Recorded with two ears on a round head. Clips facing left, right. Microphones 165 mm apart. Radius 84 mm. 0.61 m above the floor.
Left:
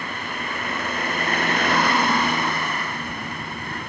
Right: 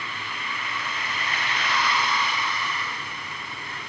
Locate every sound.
0.0 s a vehicle: 40° left (ahead or behind)